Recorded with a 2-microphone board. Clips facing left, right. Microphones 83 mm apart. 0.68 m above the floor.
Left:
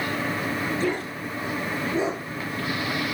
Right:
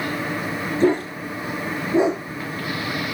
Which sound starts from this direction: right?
A dog barking, at 0.8 s.